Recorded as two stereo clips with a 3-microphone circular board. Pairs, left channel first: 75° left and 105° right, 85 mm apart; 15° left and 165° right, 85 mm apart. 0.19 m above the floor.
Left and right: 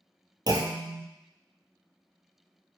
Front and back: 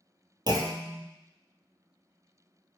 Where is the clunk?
135° right, 0.6 m.